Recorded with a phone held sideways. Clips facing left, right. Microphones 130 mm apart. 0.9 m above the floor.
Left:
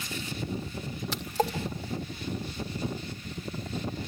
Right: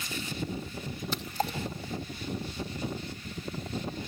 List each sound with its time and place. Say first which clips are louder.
1.1 s a splash: left 4 dB; 80° left, 2 m